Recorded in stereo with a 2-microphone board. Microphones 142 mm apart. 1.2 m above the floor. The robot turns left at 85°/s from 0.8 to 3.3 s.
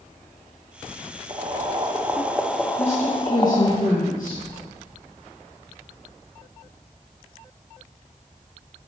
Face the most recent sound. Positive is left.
turn(degrees=90)